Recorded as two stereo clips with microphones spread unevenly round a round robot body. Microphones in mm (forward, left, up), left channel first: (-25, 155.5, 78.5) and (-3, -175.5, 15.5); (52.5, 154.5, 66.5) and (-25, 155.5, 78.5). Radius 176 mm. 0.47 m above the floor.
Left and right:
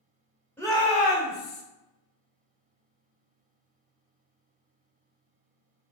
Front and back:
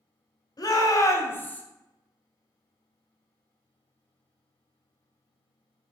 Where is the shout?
5° left, 1.3 m; by 1.6 s 60° left, 1.1 m.